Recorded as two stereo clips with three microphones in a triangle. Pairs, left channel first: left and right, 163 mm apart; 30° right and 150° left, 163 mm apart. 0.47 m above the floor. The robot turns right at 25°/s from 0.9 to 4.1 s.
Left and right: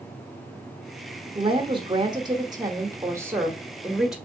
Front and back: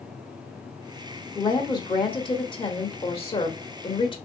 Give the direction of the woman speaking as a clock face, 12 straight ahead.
3 o'clock.